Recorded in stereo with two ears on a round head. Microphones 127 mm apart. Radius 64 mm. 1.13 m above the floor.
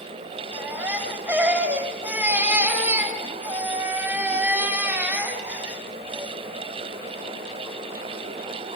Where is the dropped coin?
I don't hear a dropped coin.